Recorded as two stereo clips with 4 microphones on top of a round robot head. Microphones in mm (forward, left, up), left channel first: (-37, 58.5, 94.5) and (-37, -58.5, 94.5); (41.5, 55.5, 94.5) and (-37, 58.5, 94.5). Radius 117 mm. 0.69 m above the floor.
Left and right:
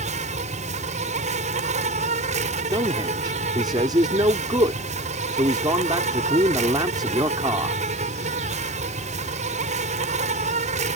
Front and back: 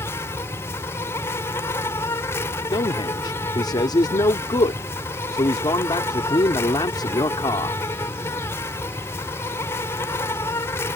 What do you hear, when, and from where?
0.0 s an insect: 65° right
2.7 s a man speaking: 35° right